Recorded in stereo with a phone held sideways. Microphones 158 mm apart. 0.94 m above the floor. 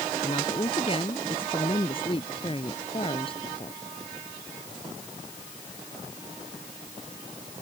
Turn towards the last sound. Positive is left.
turn(degrees=35)  # may be behind; listen again after turning